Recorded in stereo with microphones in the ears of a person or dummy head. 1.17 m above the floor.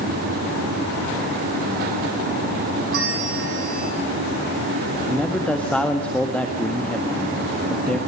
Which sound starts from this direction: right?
A bell, at 2.9 s.